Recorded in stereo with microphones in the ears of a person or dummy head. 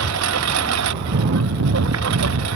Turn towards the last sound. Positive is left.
turn(degrees=-75)  # may be behind; listen again after turning